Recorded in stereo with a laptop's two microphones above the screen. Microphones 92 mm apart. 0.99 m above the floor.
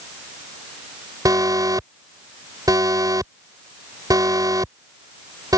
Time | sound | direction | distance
1.2 | an alarm | 40° right (ahead or behind) | ?